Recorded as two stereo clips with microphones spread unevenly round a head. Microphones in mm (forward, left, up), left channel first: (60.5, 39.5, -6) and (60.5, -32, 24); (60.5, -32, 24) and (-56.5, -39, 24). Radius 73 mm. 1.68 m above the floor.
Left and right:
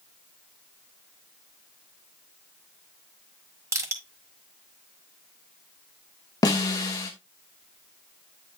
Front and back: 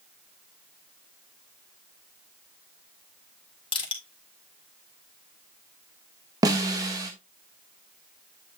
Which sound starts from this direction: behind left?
A snare drum, at 6.4 s.